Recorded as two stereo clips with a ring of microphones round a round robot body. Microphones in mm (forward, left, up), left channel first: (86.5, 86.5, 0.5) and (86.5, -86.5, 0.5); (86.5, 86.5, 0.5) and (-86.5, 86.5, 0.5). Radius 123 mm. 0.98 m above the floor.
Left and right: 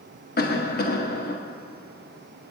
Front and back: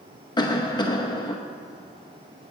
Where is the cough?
65° left, 1.0 m.